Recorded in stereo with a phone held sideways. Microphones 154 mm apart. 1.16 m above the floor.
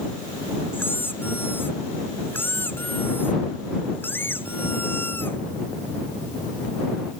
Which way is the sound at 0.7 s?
15° left (ahead or behind).